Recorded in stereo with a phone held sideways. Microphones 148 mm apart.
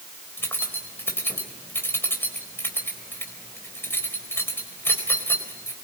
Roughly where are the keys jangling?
Centre.